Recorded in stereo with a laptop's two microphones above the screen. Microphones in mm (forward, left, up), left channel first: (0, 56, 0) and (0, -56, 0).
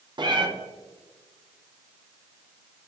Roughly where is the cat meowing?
Right.